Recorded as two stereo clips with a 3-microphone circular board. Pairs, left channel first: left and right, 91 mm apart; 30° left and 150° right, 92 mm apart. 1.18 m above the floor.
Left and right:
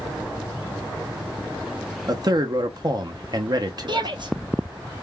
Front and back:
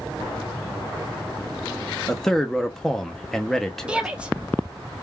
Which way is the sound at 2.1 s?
55° right.